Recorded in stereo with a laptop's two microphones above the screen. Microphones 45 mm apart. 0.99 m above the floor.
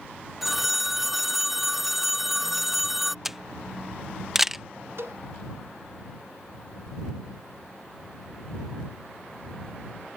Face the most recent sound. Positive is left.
turn(degrees=-80)